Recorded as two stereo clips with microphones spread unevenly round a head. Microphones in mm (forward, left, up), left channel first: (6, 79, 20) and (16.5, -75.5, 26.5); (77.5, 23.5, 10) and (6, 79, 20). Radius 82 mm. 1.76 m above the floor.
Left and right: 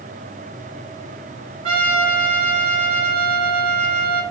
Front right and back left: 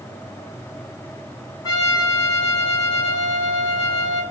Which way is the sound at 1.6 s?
75° right.